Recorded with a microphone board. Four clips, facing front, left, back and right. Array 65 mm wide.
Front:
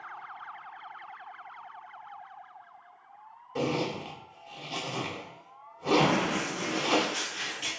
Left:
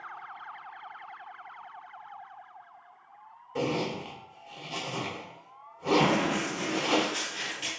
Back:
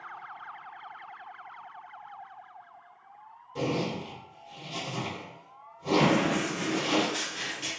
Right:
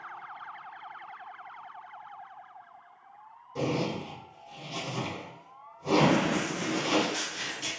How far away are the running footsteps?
About 1.8 m.